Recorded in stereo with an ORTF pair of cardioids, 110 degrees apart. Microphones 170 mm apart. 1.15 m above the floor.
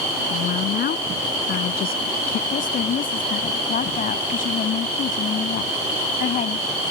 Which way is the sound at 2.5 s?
55° left.